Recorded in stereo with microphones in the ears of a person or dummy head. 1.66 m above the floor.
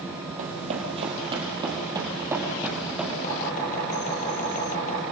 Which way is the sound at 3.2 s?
45° left (ahead or behind).